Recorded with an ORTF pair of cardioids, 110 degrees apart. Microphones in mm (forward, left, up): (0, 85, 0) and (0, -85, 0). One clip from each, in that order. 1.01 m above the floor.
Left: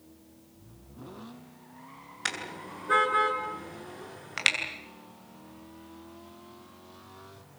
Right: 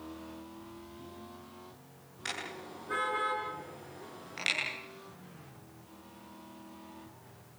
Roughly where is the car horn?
Ahead left.